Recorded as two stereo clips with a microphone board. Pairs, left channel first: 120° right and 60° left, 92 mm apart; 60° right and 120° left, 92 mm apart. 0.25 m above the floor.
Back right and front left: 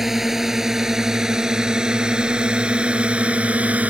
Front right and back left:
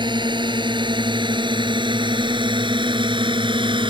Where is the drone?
145° left; by 3.9 s 135° left.